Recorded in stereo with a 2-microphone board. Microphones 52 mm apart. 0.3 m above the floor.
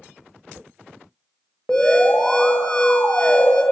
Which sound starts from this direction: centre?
An alarm, at 1.7 s.